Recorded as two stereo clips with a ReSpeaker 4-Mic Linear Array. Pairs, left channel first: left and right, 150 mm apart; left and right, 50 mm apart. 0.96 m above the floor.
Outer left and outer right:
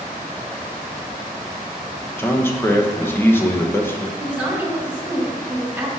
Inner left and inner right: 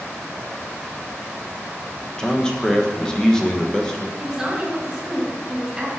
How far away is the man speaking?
About 0.7 m.